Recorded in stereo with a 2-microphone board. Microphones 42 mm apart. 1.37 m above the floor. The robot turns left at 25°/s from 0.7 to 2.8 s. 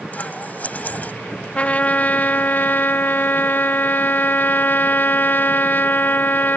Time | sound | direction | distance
0.1 | scissors | 40° left (ahead or behind) | ?
1.6 | a trumpet | 135° left | ?